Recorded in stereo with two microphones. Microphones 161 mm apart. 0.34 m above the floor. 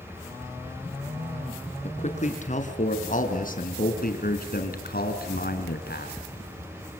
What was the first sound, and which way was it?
A man speaking, 45° left (ahead or behind).